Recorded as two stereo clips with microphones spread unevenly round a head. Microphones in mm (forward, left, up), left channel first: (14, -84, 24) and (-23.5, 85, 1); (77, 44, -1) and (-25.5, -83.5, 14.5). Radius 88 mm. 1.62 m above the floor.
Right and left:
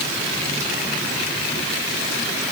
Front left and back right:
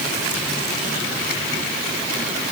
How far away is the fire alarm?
I don't hear a fire alarm.